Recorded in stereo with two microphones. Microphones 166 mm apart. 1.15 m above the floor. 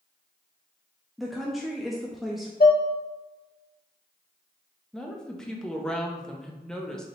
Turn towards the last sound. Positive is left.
turn(degrees=5)  # may be behind; listen again after turning